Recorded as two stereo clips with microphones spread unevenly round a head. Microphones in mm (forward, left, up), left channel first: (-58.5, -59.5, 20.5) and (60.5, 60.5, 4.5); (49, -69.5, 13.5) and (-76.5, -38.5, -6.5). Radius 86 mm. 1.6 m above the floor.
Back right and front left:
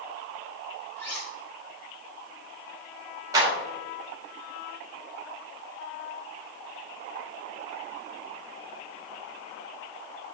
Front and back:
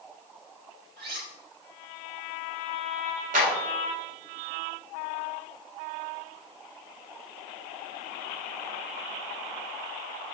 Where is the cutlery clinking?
145° left, 3.5 m.